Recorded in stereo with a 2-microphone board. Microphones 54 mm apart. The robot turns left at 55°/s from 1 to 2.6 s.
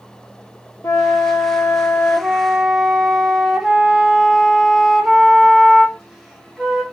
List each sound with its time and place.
0.8 s a flute: 80° left, 1.2 m; by 6.8 s 10° right, 1.2 m